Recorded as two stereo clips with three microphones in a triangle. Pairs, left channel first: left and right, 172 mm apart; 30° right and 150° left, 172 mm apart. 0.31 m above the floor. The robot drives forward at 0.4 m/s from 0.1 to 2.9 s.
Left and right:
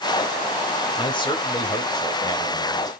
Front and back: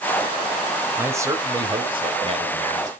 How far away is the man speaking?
About 1.2 m.